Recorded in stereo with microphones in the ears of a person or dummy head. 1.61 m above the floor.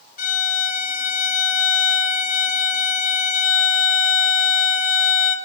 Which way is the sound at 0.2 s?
50° left (ahead or behind).